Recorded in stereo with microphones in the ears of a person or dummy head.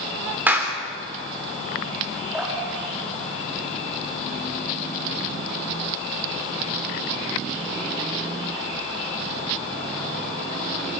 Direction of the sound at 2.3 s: 10° right (ahead or behind).